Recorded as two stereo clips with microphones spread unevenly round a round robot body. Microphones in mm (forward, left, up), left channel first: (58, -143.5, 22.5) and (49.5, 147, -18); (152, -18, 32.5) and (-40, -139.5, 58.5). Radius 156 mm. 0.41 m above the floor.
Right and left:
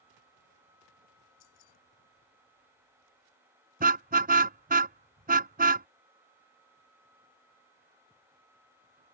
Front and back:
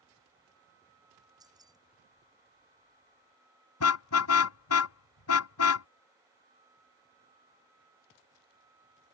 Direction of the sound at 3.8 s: 30° left.